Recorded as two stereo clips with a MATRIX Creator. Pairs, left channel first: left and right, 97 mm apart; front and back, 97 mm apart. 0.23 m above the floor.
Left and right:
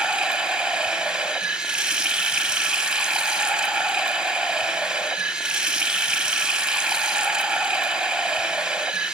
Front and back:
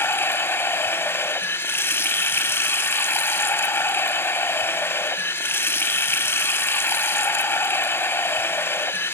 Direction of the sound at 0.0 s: 20° right.